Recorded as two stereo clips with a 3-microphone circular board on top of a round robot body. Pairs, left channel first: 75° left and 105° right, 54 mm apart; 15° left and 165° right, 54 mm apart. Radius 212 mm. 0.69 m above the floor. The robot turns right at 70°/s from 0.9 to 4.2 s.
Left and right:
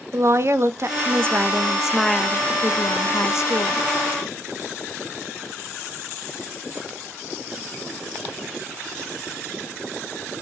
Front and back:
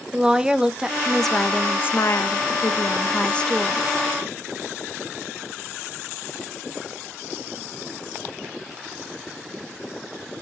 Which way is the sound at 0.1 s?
90° right.